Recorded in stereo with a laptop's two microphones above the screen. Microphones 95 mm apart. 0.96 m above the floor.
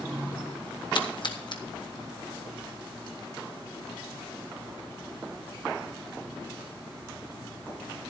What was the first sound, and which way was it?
A splash, 55° left (ahead or behind).